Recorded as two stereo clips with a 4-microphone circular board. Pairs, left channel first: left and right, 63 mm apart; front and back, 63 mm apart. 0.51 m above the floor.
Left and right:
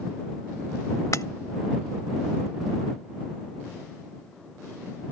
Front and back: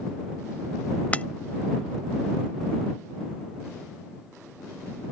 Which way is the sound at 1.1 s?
65° left.